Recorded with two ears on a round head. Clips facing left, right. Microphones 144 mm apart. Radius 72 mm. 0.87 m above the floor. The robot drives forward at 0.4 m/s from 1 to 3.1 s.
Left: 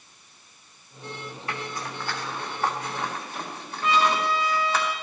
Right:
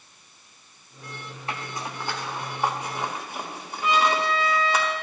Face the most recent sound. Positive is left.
turn(degrees=0)  # may be behind; listen again after turning